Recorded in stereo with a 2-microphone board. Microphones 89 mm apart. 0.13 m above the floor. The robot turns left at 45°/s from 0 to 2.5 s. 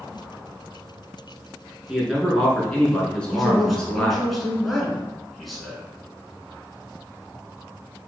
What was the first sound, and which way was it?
A man speaking, 5° right (ahead or behind).